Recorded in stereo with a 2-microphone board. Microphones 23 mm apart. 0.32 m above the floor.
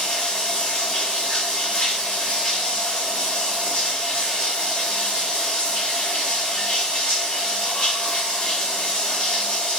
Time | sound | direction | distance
0.0 | running water | 55° left (ahead or behind) | 1.5 m